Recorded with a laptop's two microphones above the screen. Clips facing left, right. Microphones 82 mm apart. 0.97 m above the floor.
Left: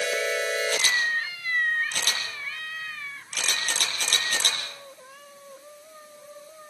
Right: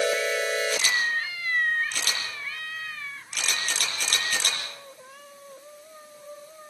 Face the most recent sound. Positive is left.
turn(degrees=45)  # may be behind; listen again after turning